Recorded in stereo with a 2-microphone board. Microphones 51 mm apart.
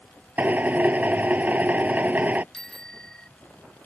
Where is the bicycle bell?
10° left (ahead or behind).